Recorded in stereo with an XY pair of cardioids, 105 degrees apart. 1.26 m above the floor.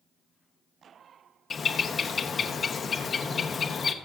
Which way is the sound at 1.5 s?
40° left.